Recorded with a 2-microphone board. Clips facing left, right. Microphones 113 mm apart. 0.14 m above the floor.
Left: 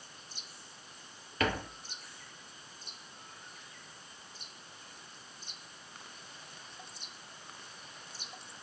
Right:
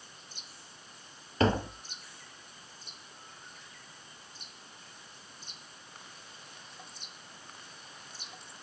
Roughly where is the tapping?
Right.